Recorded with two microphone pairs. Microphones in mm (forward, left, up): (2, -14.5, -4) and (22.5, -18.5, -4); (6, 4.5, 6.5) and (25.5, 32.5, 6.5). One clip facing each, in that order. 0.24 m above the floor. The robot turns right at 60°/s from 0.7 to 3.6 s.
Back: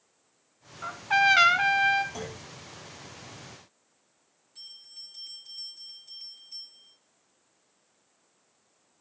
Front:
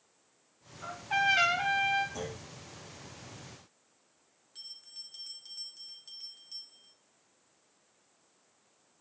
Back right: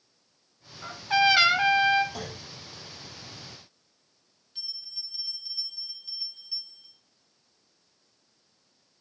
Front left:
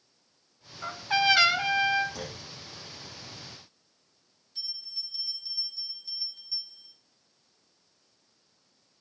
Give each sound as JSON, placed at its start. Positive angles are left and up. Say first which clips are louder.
{"t": 0.8, "sound": "a trumpet", "louder": "back 6 dB, back right 2 dB", "azimuth_deg": 120, "distance_m": 0.9}
{"t": 2.1, "sound": "a clunk", "louder": "back 1 dB, back right 1 dB", "azimuth_deg": -150, "distance_m": 6.0}
{"t": 4.5, "sound": "a bell", "louder": "back 1 dB, even", "azimuth_deg": -60, "distance_m": 3.5}